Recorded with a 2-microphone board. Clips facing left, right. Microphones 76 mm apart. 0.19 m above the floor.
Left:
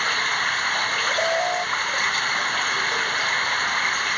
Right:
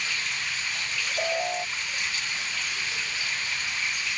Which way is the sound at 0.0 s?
55° left (ahead or behind).